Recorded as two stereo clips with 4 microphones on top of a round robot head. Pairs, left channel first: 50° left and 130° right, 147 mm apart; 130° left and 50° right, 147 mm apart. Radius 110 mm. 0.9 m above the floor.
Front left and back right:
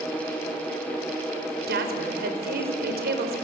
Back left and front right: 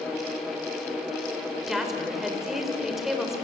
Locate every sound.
1.7 s a woman speaking: 135° right, 4 m